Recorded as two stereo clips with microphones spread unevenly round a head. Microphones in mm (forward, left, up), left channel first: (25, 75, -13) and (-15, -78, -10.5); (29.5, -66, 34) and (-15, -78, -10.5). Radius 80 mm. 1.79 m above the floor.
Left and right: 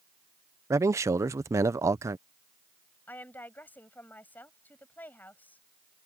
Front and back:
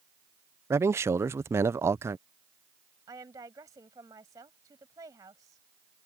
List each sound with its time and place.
0.7 s a man speaking: 70° right
3.1 s a woman speaking: 155° left